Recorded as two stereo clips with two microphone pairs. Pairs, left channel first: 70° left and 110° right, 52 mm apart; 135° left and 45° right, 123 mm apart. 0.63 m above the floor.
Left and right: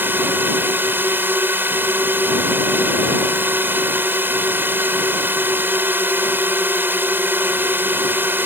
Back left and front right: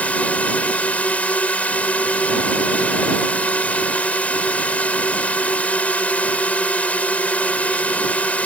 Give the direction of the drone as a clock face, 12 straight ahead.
5 o'clock.